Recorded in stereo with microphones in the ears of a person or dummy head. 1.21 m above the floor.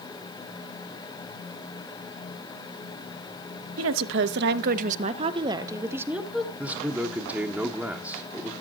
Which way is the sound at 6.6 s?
10° right (ahead or behind).